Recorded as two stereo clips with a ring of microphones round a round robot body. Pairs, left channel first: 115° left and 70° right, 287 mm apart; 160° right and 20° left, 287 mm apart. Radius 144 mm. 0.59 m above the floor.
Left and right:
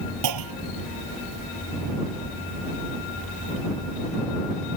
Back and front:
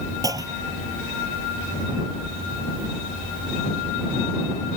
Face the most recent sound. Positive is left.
turn(degrees=-55)